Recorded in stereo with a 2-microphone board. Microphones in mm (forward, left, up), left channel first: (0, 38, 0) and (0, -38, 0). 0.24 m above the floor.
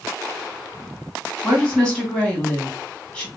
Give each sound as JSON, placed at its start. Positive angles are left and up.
{"t": 1.4, "sound": "a woman speaking", "side_deg": 10, "distance_m": 1.9}